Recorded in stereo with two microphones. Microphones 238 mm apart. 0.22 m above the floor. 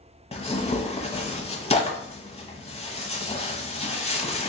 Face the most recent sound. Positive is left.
turn(degrees=25)  # may be behind; listen again after turning